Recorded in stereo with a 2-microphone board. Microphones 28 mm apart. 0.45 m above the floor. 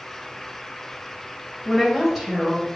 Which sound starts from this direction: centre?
A woman speaking, at 1.6 s.